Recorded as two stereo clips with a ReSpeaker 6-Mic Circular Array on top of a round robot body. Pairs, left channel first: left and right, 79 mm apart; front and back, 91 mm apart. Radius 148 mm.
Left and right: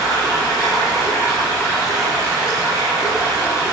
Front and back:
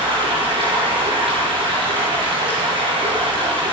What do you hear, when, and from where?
0.0 s running water: 145° left, 5.5 m